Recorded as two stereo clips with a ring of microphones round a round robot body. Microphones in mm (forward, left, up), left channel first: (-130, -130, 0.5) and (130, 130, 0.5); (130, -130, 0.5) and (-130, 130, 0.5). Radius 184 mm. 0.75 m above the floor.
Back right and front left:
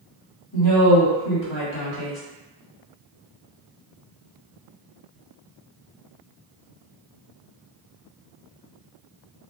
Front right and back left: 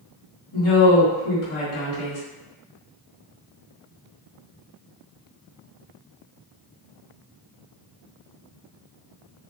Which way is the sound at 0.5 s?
95° right.